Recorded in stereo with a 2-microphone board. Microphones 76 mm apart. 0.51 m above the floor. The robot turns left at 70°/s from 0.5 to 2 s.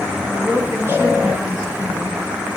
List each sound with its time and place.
0.3 s a woman speaking: 115° right, 2 m; by 2.2 s 140° left, 2 m